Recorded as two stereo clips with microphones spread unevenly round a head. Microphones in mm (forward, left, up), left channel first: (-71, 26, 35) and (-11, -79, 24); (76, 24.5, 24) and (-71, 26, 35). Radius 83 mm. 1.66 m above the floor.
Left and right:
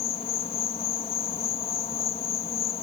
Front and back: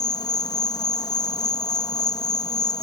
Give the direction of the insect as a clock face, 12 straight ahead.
10 o'clock.